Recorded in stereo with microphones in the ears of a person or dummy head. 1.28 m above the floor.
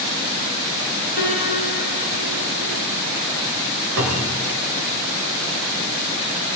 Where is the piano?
40° right (ahead or behind), 6 m.